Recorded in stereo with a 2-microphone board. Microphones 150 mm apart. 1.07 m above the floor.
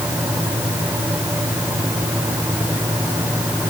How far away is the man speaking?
I don't hear a man speaking.